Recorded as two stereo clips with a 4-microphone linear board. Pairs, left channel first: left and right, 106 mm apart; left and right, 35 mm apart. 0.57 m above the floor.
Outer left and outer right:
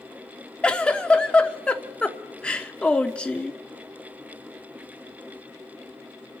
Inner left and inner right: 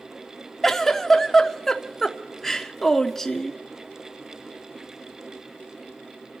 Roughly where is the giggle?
Centre.